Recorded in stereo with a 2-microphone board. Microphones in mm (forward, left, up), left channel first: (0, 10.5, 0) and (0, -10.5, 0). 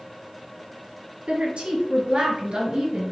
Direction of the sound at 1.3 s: 60° right (ahead or behind).